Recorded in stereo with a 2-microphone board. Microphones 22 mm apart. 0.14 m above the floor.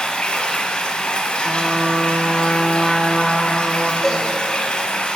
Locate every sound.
0.0 s running water: 50° left (ahead or behind), 1.1 m
1.4 s a trumpet: 10° right (ahead or behind), 1.4 m
4.0 s a cowbell: 20° left (ahead or behind), 3 m